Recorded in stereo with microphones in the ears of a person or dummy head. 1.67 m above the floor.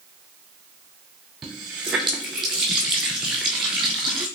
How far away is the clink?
No clink in this recording.